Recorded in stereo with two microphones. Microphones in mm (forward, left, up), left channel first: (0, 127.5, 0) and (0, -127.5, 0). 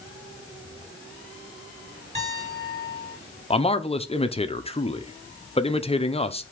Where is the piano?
25° right (ahead or behind), 4 m.